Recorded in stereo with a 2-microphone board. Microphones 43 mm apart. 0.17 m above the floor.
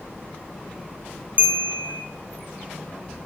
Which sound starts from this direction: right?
A bell, at 1.4 s.